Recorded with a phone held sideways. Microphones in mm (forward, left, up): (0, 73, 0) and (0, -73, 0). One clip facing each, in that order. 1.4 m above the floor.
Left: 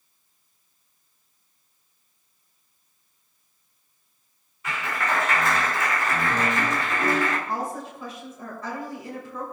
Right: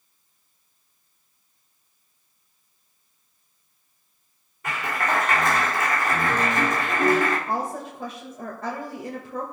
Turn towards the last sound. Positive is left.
turn(degrees=-60)  # may be behind; listen again after turning